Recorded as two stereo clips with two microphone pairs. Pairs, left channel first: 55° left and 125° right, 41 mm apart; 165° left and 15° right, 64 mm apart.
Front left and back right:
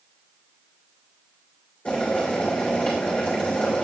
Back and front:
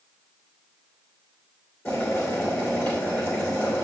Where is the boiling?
115° left, 3 m.